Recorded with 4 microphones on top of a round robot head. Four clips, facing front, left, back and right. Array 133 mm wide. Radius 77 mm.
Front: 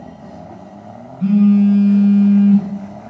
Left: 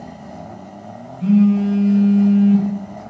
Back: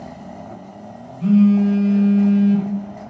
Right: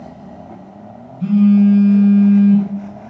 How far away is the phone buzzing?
About 1.3 m.